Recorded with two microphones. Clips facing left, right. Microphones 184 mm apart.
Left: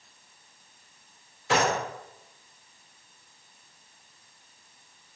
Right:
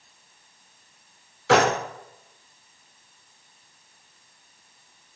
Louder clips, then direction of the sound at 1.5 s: Right 6 dB; 80° right.